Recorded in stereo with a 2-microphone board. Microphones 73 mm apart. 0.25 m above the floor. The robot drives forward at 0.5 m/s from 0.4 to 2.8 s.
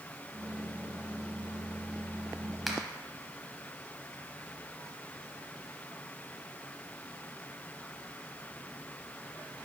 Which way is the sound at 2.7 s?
5° right (ahead or behind).